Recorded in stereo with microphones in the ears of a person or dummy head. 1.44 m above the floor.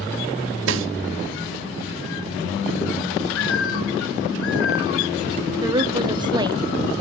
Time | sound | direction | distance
0.7 | a snare drum | 70° right (ahead or behind) | 1.0 m
3.3 | a bird | 80° left | 3.5 m
5.6 | a woman speaking | 25° right (ahead or behind) | 1.1 m